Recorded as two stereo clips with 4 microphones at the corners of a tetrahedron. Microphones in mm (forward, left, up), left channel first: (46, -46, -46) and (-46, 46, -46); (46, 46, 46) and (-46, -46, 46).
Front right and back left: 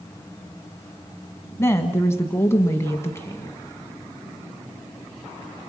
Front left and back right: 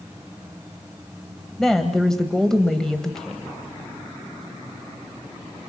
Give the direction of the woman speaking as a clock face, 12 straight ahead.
1 o'clock.